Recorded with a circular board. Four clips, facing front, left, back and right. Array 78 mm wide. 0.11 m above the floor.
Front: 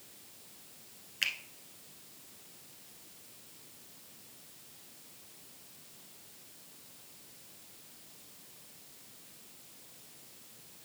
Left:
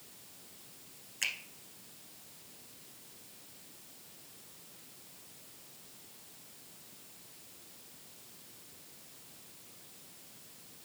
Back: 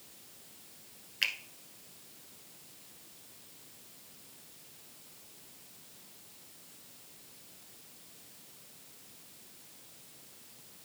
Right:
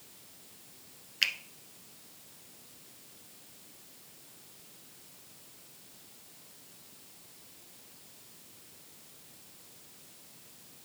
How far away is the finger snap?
About 0.9 m.